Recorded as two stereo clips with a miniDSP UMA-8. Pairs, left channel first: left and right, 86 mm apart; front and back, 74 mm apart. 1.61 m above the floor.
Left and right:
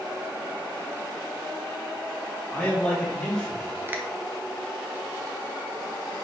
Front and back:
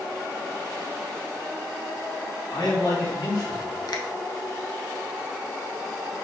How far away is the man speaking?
About 3.5 m.